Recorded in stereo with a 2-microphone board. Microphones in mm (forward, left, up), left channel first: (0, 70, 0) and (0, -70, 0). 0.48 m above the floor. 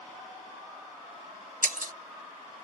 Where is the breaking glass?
75° right (ahead or behind).